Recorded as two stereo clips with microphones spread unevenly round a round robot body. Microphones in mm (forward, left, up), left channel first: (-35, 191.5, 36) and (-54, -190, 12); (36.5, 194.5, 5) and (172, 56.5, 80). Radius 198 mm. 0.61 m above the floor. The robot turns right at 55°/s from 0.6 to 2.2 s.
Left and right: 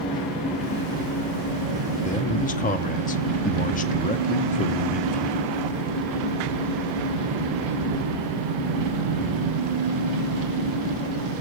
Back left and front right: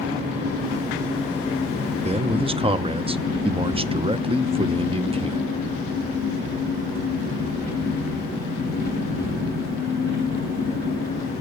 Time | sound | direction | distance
0.0 | an engine running | straight behind | 5 m
2.0 | a man speaking | 25° left | 0.7 m